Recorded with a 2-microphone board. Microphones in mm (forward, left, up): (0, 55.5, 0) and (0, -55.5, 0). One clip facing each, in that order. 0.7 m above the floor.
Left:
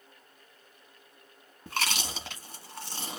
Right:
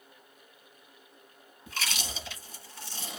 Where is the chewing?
65° left (ahead or behind), 1.2 m.